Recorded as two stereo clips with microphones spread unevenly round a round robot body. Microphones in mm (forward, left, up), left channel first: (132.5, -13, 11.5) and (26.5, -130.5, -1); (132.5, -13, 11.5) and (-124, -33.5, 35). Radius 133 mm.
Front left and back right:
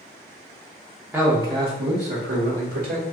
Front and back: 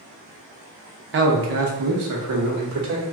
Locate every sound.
1.1 s a man speaking: 155° left, 0.8 m; by 3.0 s 150° right, 1.3 m